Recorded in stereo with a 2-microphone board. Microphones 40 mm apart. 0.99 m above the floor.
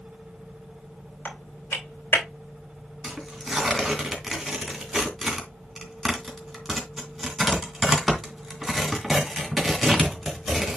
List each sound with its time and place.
1.2 s typing on a keyboard: 75° left (ahead or behind), 3 m
3.0 s tearing paper: 5° right (ahead or behind), 2.5 m